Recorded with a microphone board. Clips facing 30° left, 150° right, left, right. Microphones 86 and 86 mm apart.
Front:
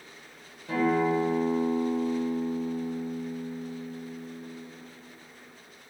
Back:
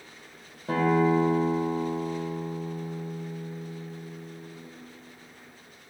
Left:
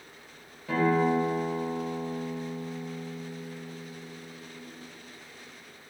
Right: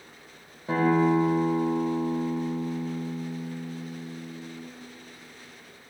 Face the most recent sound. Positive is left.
turn(degrees=-140)